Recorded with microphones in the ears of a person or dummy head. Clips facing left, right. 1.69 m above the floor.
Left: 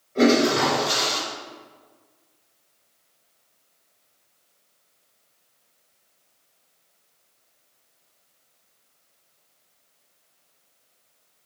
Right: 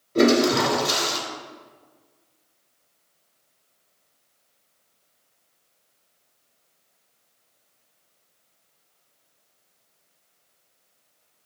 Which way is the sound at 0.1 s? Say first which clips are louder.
Even; 45° right (ahead or behind).